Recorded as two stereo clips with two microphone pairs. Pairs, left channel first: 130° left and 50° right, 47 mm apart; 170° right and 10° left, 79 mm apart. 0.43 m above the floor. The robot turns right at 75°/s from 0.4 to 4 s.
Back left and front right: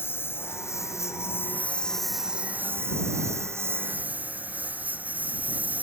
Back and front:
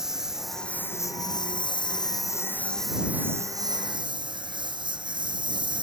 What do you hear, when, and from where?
0.0 s a lawn mower: 95° left; by 5.8 s 5° left